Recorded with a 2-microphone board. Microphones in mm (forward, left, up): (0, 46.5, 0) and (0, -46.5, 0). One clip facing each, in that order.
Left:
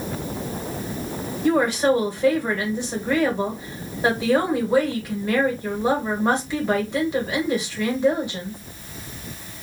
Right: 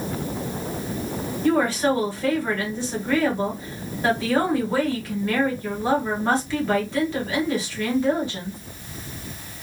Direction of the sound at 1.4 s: 20° left (ahead or behind).